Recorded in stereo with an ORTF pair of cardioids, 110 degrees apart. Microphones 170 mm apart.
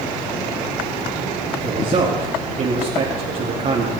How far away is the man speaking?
About 2.5 m.